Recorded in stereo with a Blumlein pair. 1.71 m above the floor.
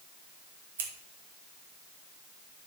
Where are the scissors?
60° right, 2 m.